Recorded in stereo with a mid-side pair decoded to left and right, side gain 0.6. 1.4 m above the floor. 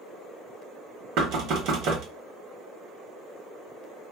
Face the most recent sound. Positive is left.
turn(degrees=-65)